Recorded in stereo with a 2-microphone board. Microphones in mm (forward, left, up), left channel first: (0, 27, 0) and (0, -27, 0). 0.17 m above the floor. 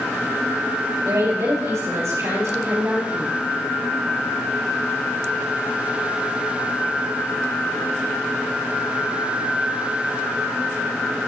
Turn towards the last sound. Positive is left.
turn(degrees=-70)  # may be behind; listen again after turning